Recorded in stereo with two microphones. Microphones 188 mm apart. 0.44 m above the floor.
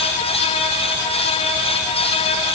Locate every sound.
Only background noise.